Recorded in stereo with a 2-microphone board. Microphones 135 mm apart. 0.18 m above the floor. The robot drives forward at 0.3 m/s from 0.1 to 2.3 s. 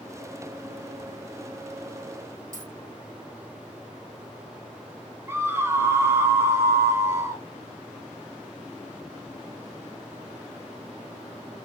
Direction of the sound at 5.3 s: 20° right (ahead or behind).